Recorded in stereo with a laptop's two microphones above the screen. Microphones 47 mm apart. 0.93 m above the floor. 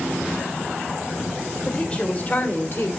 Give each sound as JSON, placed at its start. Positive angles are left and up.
{"t": 1.6, "sound": "a woman speaking", "side_deg": 25, "distance_m": 3.0}